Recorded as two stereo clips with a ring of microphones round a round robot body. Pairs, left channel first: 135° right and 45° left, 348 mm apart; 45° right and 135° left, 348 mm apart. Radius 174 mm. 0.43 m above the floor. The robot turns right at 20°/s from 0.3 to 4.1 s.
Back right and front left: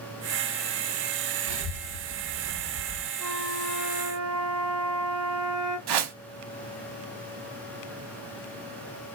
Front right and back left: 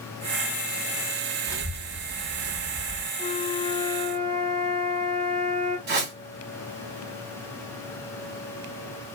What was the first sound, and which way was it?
A child speaking, 50° left.